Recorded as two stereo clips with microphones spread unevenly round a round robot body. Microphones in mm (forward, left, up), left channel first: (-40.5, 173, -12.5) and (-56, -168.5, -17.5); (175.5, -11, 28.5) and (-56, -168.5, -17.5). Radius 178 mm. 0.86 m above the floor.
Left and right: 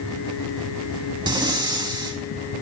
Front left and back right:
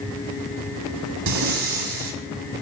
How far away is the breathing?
About 3 m.